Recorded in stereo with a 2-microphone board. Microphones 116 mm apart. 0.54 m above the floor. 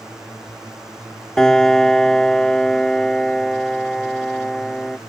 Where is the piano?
5° left (ahead or behind).